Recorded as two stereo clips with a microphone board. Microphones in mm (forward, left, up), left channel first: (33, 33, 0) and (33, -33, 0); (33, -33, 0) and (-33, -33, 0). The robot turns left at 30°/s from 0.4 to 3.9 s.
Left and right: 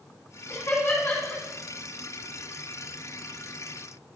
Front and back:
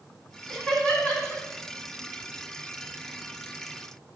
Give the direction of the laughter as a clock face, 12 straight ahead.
9 o'clock.